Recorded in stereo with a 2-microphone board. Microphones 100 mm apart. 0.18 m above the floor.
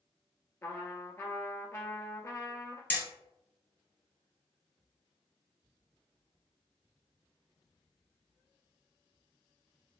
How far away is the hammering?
About 1.7 m.